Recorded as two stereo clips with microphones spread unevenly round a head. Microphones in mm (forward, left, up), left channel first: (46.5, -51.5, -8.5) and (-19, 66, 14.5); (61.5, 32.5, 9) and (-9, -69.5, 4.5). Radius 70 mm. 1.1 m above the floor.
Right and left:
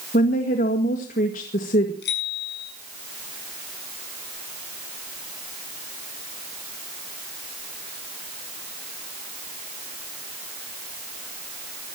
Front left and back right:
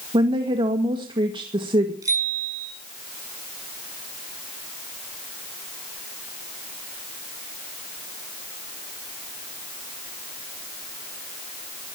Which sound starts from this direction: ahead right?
A bicycle bell, at 2.0 s.